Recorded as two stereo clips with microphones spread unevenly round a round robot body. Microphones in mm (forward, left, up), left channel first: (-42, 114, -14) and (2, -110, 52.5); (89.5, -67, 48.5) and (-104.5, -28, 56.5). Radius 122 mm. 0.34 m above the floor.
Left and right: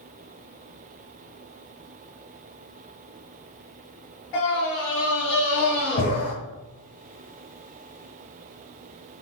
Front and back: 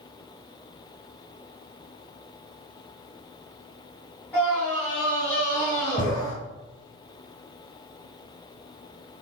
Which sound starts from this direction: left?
A scream, at 4.3 s.